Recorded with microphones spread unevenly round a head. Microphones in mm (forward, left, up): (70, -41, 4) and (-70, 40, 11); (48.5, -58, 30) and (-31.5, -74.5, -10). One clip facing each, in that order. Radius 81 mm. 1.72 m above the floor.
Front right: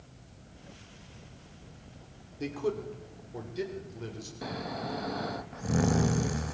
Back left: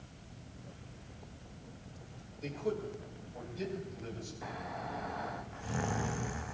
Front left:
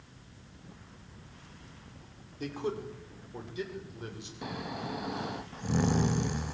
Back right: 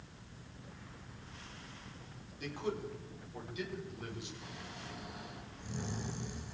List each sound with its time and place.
2.4 s a man speaking: 25° right, 5.5 m; by 4.3 s 40° right, 7.5 m
4.4 s snoring: 15° left, 0.6 m